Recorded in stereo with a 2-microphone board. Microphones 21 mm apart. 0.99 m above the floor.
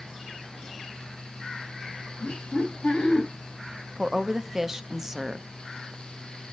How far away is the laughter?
About 6 m.